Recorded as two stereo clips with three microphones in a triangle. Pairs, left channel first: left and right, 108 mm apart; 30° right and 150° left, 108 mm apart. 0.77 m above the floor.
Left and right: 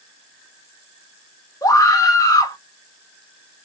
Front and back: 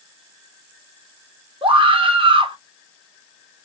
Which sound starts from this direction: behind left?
A scream, at 1.6 s.